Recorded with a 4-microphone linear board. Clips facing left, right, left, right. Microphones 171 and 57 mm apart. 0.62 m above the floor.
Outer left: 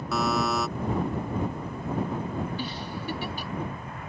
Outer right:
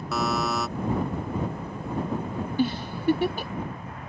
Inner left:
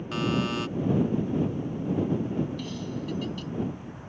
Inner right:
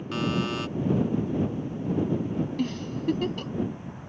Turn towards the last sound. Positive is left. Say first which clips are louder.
# outer right 8 dB, inner right 4 dB
turn(degrees=-45)  # may be behind; listen again after turning